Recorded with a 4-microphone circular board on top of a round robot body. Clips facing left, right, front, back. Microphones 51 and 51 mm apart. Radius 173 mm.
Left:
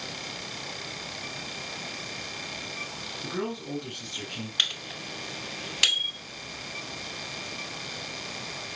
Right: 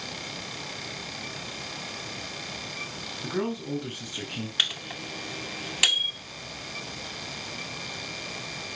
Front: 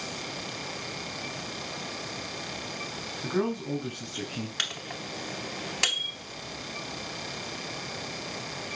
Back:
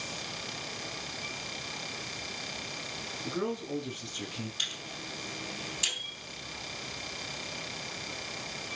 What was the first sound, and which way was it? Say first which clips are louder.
A man speaking: right 3 dB, front 5 dB; 5° right.